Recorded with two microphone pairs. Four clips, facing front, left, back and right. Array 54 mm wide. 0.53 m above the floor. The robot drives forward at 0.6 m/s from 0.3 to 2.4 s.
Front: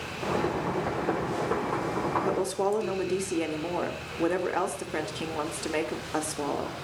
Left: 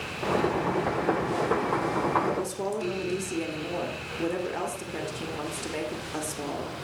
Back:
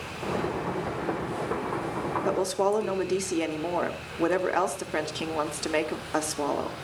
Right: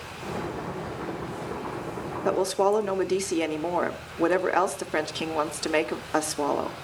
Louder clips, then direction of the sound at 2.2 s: Right 6 dB, back 2 dB; 100° right.